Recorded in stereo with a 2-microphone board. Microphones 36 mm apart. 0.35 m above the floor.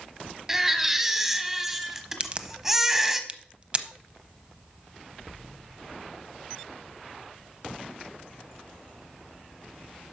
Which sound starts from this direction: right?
A crack, at 2.2 s.